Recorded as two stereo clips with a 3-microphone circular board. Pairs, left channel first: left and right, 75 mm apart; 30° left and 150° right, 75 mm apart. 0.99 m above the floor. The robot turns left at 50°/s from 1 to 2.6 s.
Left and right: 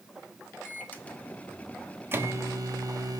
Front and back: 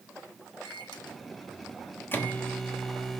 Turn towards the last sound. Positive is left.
turn(degrees=-55)